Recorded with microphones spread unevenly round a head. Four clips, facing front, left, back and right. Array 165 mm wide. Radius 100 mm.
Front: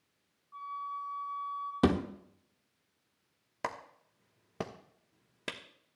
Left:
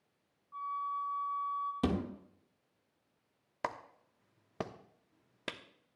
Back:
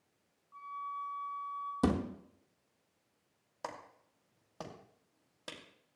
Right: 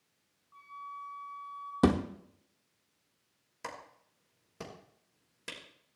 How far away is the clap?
About 1.1 m.